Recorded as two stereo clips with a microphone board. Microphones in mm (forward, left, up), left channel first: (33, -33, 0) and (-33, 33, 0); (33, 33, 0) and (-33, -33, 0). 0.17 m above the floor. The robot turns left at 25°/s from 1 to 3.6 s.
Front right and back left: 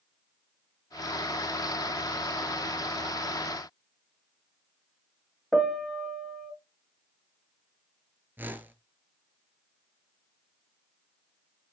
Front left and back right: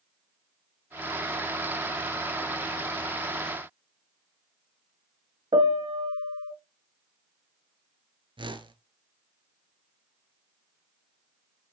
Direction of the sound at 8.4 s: 155° right.